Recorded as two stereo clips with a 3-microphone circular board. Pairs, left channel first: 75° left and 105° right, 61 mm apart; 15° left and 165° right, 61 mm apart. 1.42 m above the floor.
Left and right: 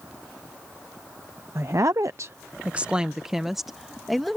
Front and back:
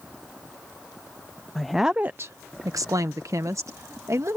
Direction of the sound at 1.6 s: 65° right.